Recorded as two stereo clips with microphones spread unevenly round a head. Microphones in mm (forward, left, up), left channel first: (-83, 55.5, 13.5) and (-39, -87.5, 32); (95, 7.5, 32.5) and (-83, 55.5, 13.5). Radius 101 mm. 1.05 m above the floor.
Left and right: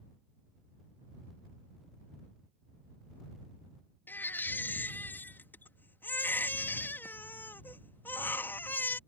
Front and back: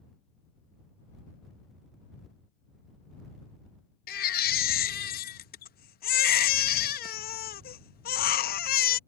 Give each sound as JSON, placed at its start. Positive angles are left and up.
{"t": 4.1, "sound": "a baby crying", "azimuth_deg": 25}